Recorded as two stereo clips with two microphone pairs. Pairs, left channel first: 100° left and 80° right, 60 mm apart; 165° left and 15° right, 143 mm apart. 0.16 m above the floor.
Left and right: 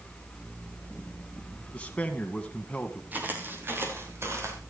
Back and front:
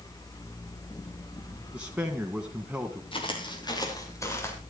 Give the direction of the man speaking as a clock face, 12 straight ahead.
10 o'clock.